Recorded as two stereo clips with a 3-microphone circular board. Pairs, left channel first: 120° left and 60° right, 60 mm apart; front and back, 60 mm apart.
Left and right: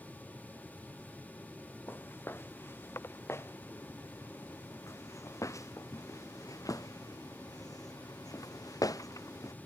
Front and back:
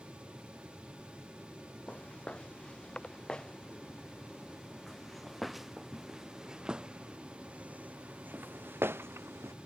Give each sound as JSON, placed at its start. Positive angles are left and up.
{"t": 1.9, "sound": "footsteps", "azimuth_deg": 70}